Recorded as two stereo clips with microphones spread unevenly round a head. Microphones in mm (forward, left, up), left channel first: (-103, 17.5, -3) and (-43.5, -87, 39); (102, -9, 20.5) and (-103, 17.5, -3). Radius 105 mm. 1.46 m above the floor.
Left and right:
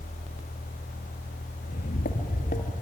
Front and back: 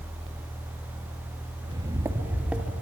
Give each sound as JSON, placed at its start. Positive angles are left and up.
{"t": 1.6, "sound": "footsteps", "azimuth_deg": 105, "distance_m": 1.7}